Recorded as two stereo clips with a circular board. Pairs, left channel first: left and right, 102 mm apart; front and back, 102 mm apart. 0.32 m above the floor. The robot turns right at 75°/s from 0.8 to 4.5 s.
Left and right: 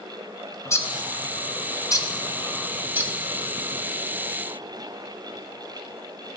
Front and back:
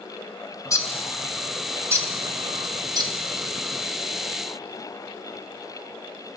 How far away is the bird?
About 0.7 m.